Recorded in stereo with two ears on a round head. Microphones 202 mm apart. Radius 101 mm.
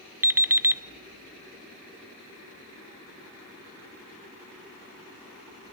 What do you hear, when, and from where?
0.2 s an alarm clock: 10° right (ahead or behind), 0.6 m